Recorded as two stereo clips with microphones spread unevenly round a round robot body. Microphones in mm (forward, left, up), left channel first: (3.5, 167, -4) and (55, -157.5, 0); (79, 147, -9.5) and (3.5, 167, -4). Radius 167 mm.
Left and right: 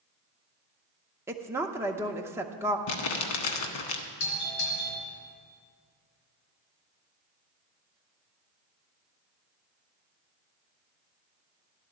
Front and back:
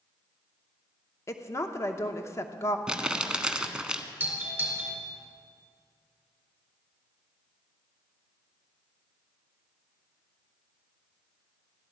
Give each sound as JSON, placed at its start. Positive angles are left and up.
{"t": 1.3, "sound": "a woman speaking", "azimuth_deg": 0, "distance_m": 0.7}
{"t": 2.9, "sound": "crumpling", "azimuth_deg": 85, "distance_m": 1.3}
{"t": 4.2, "sound": "a doorbell", "azimuth_deg": 100, "distance_m": 3.5}